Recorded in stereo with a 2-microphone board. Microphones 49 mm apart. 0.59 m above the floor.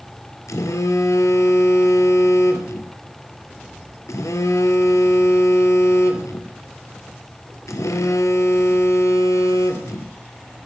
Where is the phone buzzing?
75° left (ahead or behind), 1.8 m.